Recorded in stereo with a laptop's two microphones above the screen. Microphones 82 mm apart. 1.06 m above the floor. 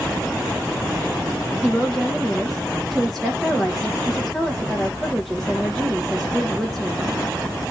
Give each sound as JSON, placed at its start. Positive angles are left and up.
{"t": 1.6, "sound": "a woman speaking", "side_deg": 0, "distance_m": 0.7}